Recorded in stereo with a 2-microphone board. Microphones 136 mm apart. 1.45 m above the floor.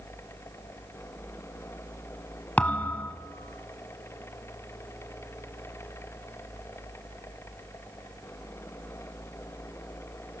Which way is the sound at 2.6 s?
10° left (ahead or behind).